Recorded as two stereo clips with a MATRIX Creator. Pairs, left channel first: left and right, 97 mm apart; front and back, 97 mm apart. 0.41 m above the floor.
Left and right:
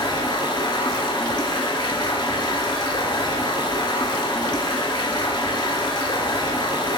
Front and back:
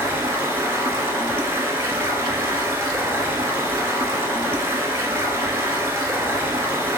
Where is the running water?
120° left, 0.8 m.